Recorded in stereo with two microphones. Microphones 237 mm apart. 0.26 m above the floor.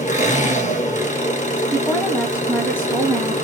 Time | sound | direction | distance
0.0 | an engine running | 30° left (ahead or behind) | 1.6 m
1.7 | a woman speaking | 10° left (ahead or behind) | 1.5 m